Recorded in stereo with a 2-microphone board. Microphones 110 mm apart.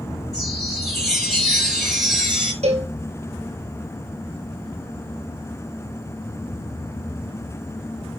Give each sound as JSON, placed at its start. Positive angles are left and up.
{"t": 0.3, "sound": "a chime", "side_deg": 0, "distance_m": 4.5}
{"t": 2.6, "sound": "a cowbell", "side_deg": -75, "distance_m": 1.5}